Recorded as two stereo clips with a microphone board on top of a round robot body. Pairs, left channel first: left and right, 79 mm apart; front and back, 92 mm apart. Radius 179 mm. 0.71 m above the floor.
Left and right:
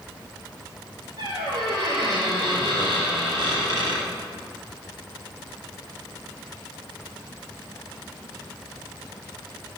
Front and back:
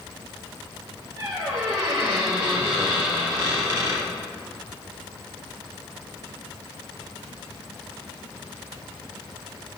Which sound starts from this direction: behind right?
A squeak, at 1.2 s.